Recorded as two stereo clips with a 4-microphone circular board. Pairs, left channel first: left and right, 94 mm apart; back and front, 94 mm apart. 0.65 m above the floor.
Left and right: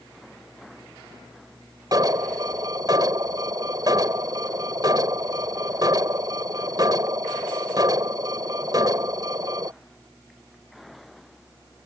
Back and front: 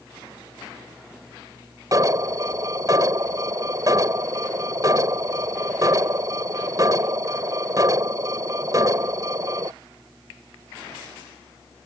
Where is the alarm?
45° right.